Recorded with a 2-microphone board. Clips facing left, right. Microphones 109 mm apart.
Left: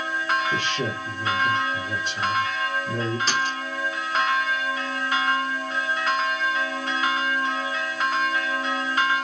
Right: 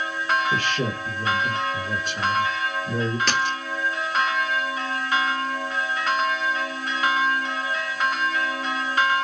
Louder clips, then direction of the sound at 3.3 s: Right 1 dB; 70° right (ahead or behind).